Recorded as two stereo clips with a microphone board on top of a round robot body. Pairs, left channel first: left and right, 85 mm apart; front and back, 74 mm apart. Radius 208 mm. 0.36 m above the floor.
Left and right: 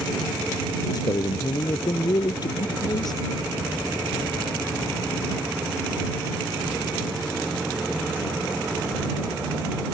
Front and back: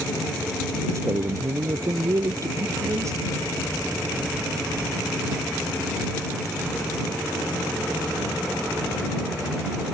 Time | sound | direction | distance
0.9 | a man speaking | 130° left | ?